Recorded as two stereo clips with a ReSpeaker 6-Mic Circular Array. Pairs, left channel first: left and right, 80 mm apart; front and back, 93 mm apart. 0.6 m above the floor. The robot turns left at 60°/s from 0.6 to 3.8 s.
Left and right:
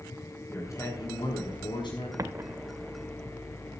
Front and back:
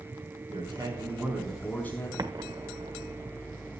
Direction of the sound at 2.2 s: 135° right.